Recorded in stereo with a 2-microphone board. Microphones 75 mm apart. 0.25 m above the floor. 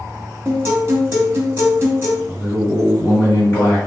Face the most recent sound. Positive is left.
turn(degrees=35)  # may be behind; listen again after turning